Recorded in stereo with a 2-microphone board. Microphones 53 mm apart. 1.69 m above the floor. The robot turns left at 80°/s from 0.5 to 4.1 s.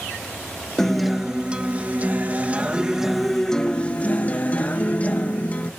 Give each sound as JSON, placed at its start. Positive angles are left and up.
{"t": 0.8, "sound": "a guitar", "azimuth_deg": 15, "distance_m": 1.0}